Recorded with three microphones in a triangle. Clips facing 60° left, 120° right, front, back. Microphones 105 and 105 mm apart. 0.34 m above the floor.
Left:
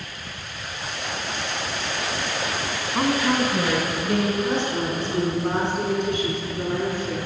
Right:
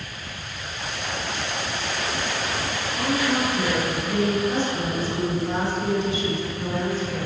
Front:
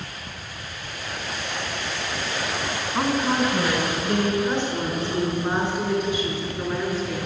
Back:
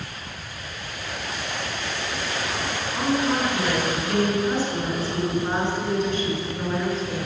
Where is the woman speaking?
55° left, 3.5 m; by 7.2 s 85° left, 5.5 m.